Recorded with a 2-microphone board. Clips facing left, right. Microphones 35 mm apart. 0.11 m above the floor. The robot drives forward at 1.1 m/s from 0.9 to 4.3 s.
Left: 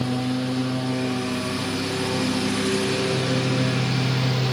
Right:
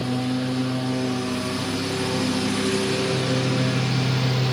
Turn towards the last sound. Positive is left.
turn(degrees=0)  # may be behind; listen again after turning